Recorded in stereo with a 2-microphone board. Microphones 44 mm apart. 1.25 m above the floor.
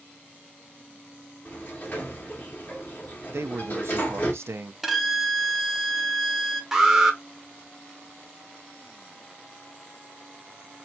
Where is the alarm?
10° right (ahead or behind), 1.0 m.